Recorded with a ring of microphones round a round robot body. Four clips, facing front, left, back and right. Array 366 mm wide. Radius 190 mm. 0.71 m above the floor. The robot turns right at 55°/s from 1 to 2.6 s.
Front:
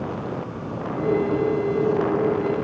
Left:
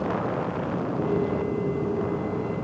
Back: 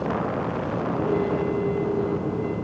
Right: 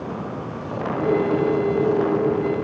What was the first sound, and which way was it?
Only background noise.